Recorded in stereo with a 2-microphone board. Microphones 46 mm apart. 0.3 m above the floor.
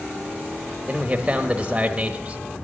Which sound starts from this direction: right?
A man speaking, at 0.9 s.